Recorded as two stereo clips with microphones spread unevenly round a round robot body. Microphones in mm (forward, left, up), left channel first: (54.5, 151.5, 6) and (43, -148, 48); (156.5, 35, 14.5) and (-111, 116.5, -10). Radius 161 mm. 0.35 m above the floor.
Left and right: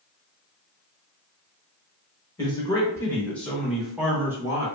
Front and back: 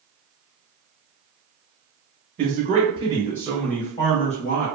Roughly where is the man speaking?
Behind left.